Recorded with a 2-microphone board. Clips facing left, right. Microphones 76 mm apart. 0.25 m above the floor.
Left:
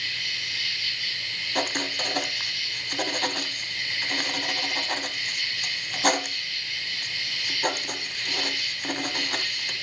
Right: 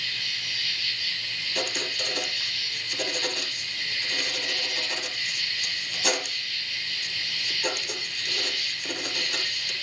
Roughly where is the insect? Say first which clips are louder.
Left 2 dB; left.